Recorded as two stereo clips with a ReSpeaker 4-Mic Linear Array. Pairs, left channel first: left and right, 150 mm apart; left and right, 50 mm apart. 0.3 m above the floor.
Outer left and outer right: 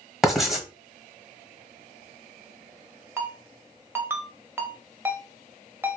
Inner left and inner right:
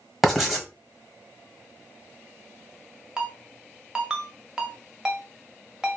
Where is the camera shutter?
I don't hear a camera shutter.